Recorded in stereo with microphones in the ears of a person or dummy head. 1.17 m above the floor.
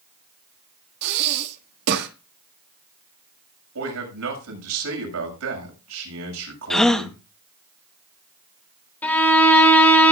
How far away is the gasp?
About 1.0 m.